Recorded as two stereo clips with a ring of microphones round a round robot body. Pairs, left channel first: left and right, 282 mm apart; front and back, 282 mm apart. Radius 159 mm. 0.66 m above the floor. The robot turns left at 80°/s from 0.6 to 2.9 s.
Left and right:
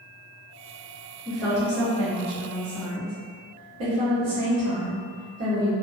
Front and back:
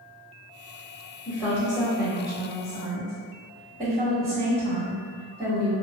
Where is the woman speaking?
25° left, 1.9 m; by 5.8 s 105° right, 1.9 m.